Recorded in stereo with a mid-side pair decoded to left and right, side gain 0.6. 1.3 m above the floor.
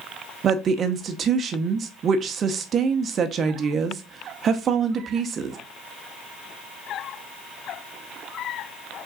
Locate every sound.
0.4 s a woman speaking: 40° right, 0.9 m